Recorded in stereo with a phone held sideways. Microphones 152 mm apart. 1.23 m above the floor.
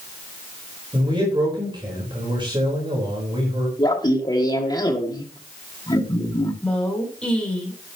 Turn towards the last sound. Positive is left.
turn(degrees=10)  # may be behind; listen again after turning